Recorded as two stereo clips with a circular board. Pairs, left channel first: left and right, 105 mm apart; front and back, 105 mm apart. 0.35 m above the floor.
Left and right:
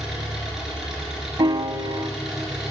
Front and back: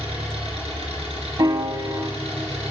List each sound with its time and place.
0.0 s an engine running: 175° right, 3.5 m
1.4 s a piano: 130° right, 0.6 m